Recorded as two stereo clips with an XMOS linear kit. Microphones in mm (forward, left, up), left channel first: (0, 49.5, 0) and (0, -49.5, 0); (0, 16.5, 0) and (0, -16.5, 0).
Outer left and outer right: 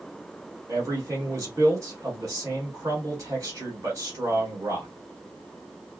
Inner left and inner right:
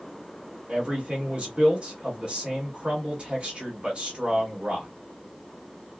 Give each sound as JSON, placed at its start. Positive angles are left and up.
{"t": 0.7, "sound": "a man speaking", "side_deg": -35, "distance_m": 1.4}